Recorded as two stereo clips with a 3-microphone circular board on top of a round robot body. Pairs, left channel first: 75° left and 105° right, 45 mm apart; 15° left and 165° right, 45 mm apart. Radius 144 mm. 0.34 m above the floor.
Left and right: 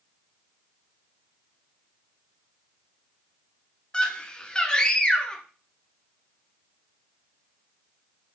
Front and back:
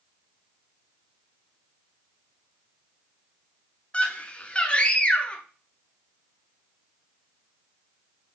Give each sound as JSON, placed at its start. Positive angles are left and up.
{"t": 3.9, "sound": "a scream", "azimuth_deg": 30, "distance_m": 0.8}